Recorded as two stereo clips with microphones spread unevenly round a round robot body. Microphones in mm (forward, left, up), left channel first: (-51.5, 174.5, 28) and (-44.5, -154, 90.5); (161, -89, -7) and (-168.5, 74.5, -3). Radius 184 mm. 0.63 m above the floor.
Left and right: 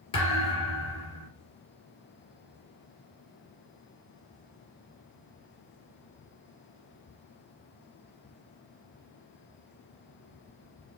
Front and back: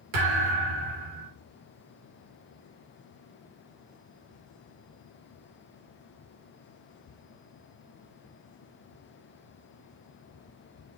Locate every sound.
0.1 s a thud: 170° left, 2.0 m